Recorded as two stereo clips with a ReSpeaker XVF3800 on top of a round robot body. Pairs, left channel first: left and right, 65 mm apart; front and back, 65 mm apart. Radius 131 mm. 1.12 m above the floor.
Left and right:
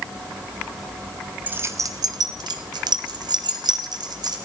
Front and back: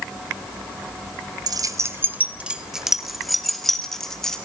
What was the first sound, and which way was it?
Keys jangling, 160° right.